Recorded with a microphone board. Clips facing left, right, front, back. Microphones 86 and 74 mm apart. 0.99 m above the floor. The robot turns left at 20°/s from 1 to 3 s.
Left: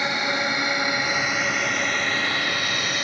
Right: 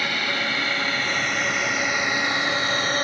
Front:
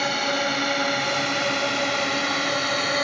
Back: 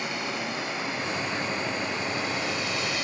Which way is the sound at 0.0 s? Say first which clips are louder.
Left 2 dB, front 7 dB; 20° left.